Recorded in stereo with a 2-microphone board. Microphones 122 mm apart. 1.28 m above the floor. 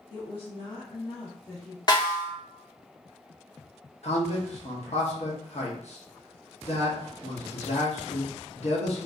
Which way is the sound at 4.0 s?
60° left (ahead or behind).